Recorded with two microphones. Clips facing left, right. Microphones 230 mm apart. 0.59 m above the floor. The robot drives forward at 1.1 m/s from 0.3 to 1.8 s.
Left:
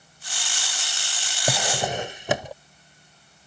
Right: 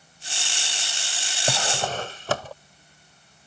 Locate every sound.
1.5 s a drawer: 10° left (ahead or behind); by 2.5 s 15° left (ahead or behind)